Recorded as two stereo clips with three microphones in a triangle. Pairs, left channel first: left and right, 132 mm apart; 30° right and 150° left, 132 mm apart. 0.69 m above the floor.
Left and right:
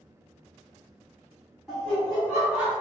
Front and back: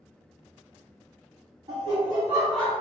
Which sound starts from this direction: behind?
Laughter, at 1.7 s.